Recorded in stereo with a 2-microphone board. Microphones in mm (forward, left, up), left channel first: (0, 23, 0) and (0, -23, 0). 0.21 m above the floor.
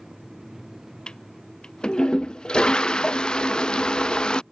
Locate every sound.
1.1 s a toilet flushing: 15° left (ahead or behind)